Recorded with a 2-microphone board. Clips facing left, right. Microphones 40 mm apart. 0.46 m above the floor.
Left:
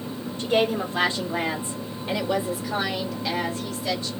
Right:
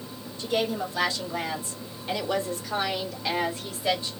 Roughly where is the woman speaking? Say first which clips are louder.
Left 4 dB; left.